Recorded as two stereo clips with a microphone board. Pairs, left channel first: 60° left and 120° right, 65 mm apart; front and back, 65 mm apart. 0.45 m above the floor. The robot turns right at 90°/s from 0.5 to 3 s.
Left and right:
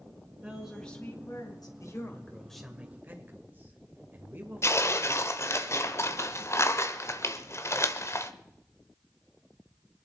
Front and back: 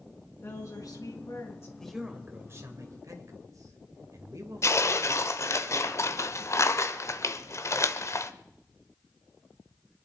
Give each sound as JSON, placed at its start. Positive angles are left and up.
{"t": 0.4, "sound": "a woman speaking", "azimuth_deg": -50, "distance_m": 4.0}
{"t": 1.8, "sound": "a man speaking", "azimuth_deg": 80, "distance_m": 2.5}
{"t": 4.6, "sound": "tearing paper", "azimuth_deg": 25, "distance_m": 1.1}